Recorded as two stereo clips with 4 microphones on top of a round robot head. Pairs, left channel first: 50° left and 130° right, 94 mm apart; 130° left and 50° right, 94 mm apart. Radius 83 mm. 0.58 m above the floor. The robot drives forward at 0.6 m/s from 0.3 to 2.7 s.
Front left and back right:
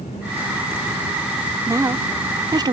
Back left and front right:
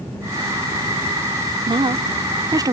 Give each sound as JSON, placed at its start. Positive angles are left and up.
{"t": 1.7, "sound": "a woman speaking", "azimuth_deg": -75}